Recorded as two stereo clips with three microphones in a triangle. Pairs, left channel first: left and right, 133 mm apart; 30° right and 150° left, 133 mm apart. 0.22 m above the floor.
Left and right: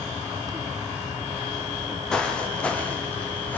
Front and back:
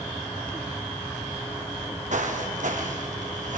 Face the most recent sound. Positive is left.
turn(degrees=165)